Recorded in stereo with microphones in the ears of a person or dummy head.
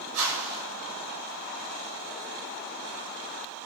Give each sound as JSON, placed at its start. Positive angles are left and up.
{"t": 0.1, "sound": "a whoosh", "side_deg": -85, "distance_m": 7.0}